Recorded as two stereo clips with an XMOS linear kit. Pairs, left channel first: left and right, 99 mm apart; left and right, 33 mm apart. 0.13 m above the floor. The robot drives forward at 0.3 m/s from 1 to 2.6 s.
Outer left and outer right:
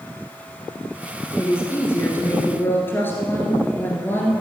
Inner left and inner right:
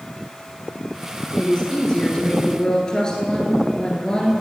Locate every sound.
1.4 s a woman speaking: 25° left (ahead or behind), 1.9 m; by 4.3 s 20° left (ahead or behind), 2 m